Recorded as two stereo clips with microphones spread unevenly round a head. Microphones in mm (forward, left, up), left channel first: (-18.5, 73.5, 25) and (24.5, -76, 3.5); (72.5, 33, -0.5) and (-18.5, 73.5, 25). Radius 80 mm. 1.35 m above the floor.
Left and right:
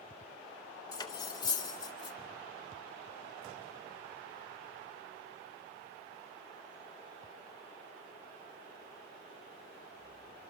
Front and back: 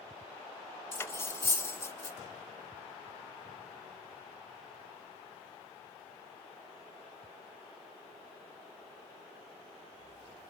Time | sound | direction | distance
0.9 | cutlery clinking | 45° left | 0.8 m